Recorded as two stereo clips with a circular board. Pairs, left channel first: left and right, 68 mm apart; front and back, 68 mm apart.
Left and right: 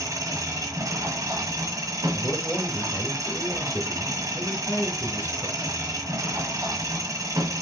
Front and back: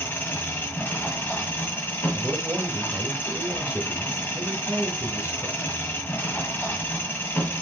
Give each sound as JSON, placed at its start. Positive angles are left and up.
{"t": 0.0, "sound": "an engine running", "azimuth_deg": -60, "distance_m": 1.7}
{"t": 2.1, "sound": "a man speaking", "azimuth_deg": 130, "distance_m": 1.4}